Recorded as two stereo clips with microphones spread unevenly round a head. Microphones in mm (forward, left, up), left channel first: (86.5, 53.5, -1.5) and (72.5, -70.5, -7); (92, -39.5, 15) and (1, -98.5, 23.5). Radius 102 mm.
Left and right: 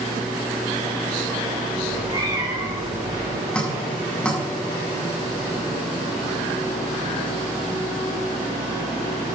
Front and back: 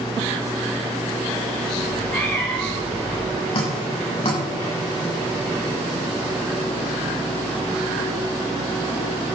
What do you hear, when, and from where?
1.8 s a cat meowing: 40° right, 6 m
3.5 s dripping: straight ahead, 7.5 m